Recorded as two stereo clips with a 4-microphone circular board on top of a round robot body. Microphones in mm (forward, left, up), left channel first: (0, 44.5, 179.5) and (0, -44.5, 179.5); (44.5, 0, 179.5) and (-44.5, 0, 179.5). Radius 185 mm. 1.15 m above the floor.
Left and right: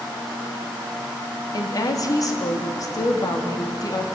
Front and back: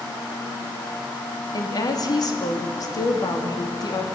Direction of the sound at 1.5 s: 45° left.